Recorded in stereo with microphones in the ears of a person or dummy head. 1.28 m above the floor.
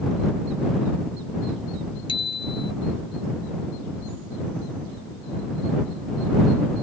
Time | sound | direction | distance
2.1 | a bicycle bell | 20° left (ahead or behind) | ?